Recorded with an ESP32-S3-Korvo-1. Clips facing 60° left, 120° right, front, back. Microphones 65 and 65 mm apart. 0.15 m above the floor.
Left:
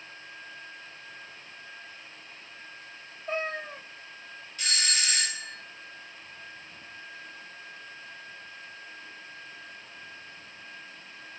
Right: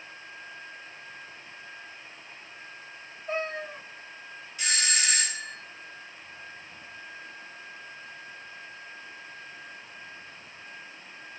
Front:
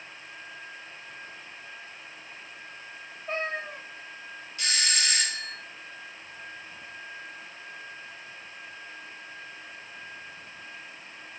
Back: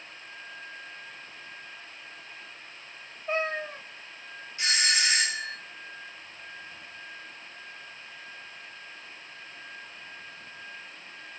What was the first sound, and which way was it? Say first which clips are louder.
A cat meowing: even, back 2 dB; 95° left.